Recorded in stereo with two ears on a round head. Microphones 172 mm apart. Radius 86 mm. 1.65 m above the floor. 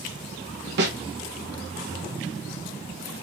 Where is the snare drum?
60° right (ahead or behind), 1.2 m.